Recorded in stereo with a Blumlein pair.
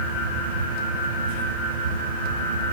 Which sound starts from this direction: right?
A fan, at 0.0 s.